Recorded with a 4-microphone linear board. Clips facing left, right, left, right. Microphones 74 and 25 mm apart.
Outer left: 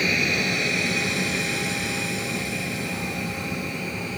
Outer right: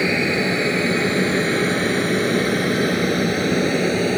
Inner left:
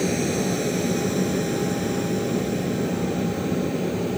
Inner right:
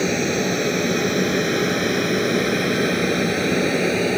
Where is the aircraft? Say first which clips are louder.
Outer right 5 dB, inner right 3 dB; 30° right (ahead or behind); by 4.2 s 75° right (ahead or behind).